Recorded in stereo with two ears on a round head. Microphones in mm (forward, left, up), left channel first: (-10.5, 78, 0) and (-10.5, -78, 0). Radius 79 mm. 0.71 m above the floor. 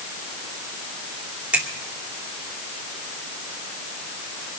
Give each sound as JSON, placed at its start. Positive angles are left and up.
{"t": 1.5, "sound": "a finger snap", "side_deg": -10, "distance_m": 2.5}